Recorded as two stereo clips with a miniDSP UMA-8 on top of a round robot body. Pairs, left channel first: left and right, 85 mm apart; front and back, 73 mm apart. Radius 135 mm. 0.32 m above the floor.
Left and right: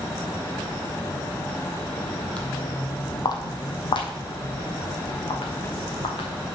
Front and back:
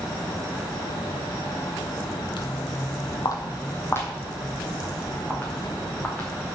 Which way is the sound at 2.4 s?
15° left.